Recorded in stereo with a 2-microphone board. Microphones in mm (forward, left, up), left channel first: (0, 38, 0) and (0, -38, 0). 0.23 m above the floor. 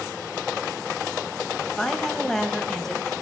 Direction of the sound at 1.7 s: 5° left (ahead or behind).